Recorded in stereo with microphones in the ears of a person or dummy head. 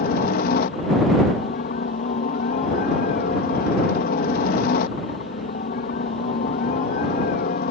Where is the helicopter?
50° left (ahead or behind).